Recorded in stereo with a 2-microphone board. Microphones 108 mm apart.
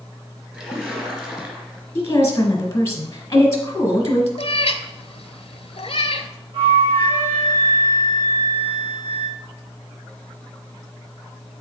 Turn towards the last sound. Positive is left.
turn(degrees=-55)  # may be behind; listen again after turning